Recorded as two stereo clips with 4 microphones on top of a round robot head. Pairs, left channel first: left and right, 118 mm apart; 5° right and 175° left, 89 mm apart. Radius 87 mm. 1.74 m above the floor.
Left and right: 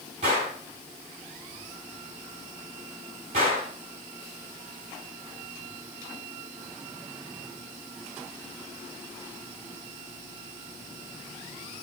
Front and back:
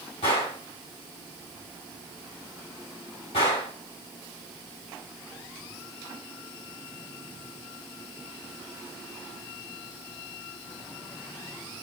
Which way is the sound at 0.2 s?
35° right.